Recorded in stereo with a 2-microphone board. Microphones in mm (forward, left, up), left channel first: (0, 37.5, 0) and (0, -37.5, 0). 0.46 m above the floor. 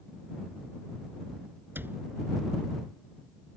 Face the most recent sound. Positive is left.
turn(degrees=-25)  # may be behind; listen again after turning